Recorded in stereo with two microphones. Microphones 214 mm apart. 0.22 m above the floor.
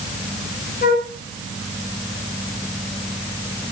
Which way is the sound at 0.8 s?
50° left (ahead or behind).